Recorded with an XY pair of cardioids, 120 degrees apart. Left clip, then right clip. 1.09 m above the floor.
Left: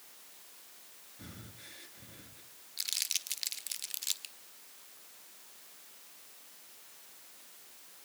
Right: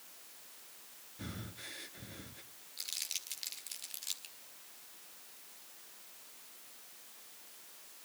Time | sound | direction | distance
1.2 | breathing | 30° right | 1.4 m
2.8 | crumpling | 35° left | 1.7 m